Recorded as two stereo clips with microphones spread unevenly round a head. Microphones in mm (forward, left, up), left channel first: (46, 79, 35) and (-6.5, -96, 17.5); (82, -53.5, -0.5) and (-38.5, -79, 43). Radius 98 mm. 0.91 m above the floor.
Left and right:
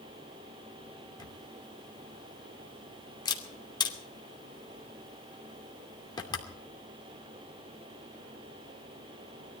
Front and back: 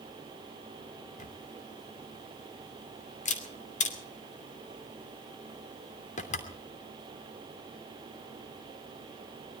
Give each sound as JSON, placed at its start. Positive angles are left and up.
{"t": 1.2, "sound": "a camera shutter", "azimuth_deg": 5, "distance_m": 2.5}